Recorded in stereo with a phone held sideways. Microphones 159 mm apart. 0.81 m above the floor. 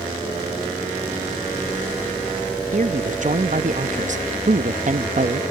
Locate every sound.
2.7 s a man speaking: 50° right (ahead or behind)